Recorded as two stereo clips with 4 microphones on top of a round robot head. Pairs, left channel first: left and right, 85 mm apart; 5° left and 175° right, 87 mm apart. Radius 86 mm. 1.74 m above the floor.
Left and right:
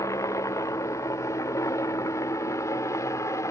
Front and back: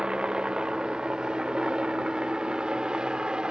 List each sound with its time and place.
0.0 s a helicopter: 115° left